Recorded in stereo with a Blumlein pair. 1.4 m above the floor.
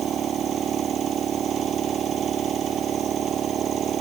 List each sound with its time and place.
0.0 s a machine running: 25° right